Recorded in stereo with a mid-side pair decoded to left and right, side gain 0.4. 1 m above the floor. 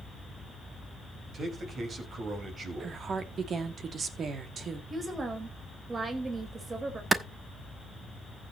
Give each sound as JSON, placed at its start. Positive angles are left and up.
{"t": 1.3, "sound": "a man speaking", "azimuth_deg": -55, "distance_m": 4.5}
{"t": 2.8, "sound": "a woman speaking", "azimuth_deg": -60, "distance_m": 2.0}
{"t": 4.9, "sound": "a woman speaking", "azimuth_deg": -40, "distance_m": 4.0}
{"t": 7.1, "sound": "a clap", "azimuth_deg": -40, "distance_m": 1.2}